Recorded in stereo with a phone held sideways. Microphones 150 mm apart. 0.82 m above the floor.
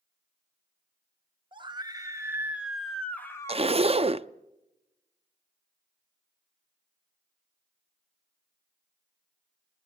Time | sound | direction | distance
1.5 | a scream | 35° right (ahead or behind) | 1.5 m
3.5 | a zipper | 40° right (ahead or behind) | 0.5 m